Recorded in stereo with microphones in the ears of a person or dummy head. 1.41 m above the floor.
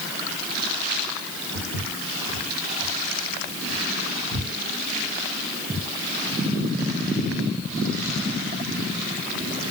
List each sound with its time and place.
1.5 s footsteps: 40° left (ahead or behind), 6 m; by 5.9 s 5° right (ahead or behind), 6 m